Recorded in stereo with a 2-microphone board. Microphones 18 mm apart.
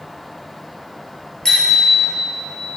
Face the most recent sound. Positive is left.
turn(degrees=30)  # may be behind; listen again after turning